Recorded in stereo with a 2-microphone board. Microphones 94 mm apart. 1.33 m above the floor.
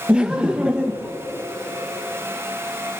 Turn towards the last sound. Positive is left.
turn(degrees=-10)  # may be behind; listen again after turning